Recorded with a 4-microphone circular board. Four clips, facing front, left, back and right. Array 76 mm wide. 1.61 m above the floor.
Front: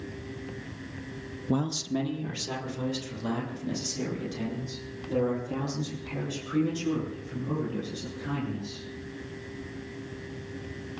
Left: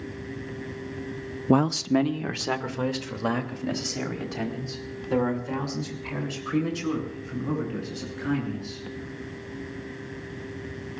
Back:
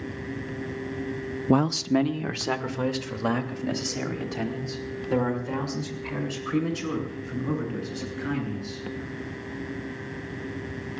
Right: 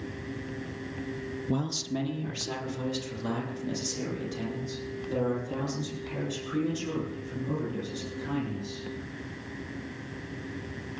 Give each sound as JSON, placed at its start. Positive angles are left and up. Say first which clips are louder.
{"t": 1.5, "sound": "a man speaking", "louder": "left 11 dB, back 7 dB", "azimuth_deg": 120, "distance_m": 0.7}